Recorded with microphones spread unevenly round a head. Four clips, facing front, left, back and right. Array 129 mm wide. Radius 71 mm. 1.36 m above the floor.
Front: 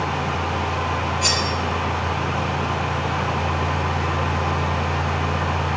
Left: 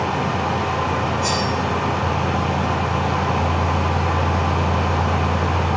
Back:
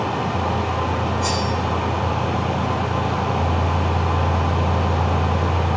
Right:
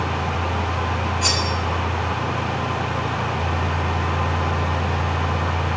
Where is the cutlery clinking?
50° right, 2 m.